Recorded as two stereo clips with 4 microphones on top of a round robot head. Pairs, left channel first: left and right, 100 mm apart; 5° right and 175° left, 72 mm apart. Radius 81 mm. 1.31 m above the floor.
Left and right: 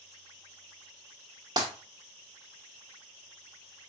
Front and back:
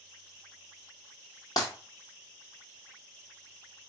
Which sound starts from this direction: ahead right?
Breaking glass, at 1.6 s.